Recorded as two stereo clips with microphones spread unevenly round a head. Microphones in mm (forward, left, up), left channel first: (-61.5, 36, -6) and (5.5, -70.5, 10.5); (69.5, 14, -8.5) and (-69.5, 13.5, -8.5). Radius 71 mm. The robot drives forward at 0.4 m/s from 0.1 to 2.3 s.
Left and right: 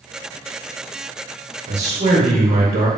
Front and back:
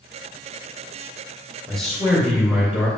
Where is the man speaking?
90° right, 2.5 m; by 2.9 s 95° right, 2.5 m.